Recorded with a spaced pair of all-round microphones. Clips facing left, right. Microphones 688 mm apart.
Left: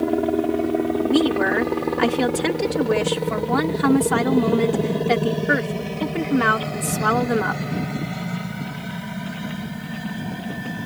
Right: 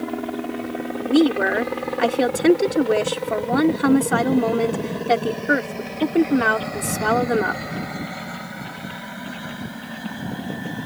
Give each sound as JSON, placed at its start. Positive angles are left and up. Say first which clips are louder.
{"t": 0.0, "sound": "a helicopter", "louder": "left 7 dB", "side_deg": 65}
{"t": 1.0, "sound": "a woman speaking", "louder": "right 4 dB", "side_deg": 30}